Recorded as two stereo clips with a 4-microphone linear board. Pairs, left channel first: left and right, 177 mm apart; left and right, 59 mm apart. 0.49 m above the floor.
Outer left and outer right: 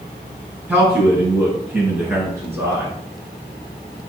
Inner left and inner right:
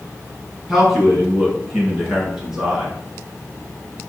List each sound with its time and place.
0.7 s a man speaking: 10° right (ahead or behind), 5.5 m